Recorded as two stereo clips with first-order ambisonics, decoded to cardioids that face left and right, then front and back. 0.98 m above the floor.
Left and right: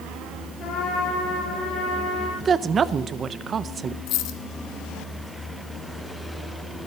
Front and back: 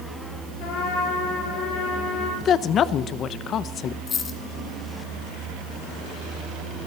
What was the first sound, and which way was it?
A trumpet, 35° left.